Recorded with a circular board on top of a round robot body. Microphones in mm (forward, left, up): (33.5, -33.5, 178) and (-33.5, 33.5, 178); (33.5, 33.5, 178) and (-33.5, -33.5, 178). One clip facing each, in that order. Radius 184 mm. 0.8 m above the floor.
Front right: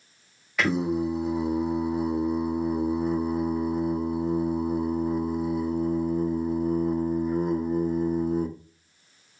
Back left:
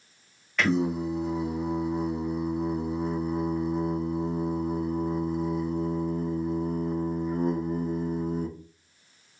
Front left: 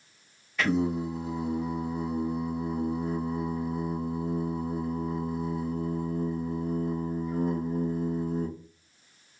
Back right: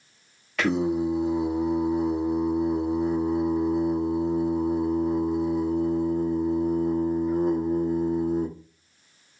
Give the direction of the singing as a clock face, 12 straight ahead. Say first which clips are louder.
Front right 1 dB, back right 3 dB; 4 o'clock.